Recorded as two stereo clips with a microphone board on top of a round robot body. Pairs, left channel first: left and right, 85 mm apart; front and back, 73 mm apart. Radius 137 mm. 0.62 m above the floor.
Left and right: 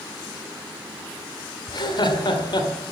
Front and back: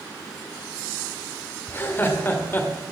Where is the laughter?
60° left, 2 m.